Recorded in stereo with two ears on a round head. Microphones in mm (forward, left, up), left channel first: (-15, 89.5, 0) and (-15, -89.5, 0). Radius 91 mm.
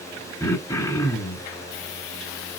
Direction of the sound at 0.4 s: 20° left (ahead or behind).